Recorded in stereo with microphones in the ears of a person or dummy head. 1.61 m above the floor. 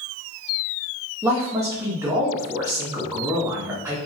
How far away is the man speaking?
About 0.8 m.